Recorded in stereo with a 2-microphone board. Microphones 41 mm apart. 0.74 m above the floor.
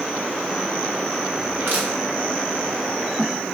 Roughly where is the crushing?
Right.